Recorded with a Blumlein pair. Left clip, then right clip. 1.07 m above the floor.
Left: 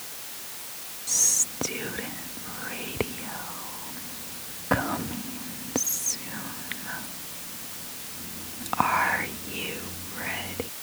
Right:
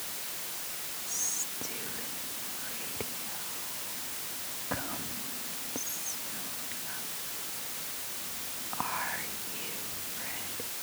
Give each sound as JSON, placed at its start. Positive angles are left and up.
{"t": 1.1, "sound": "whispering", "azimuth_deg": 60}